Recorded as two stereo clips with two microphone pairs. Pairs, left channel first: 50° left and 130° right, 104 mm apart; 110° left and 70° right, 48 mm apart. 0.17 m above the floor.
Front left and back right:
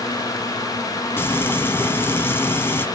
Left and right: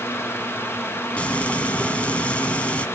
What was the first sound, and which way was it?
Frying, 90° left.